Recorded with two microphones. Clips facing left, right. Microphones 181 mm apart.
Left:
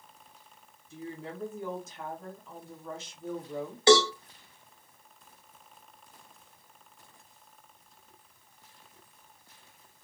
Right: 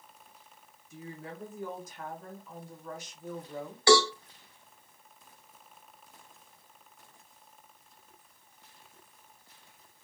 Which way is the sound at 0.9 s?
25° left (ahead or behind).